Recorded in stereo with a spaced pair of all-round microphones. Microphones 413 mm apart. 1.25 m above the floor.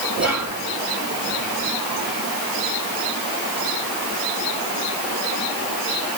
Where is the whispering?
40° right (ahead or behind), 1.6 m.